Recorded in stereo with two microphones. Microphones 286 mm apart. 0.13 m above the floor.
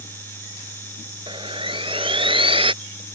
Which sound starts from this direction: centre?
Sawing, at 1.3 s.